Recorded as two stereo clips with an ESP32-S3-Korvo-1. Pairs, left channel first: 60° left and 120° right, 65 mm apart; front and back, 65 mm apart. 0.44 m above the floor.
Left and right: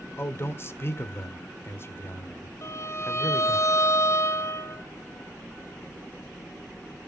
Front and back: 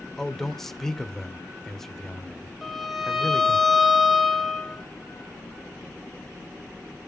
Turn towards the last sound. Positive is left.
turn(degrees=90)